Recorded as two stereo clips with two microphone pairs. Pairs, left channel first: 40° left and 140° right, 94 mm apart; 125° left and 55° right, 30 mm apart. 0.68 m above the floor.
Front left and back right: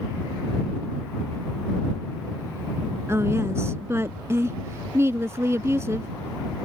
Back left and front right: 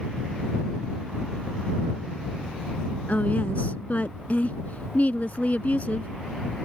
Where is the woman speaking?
160° left.